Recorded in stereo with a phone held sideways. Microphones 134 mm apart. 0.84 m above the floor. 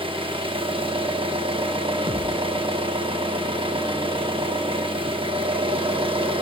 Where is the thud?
40° right (ahead or behind), 1.0 m.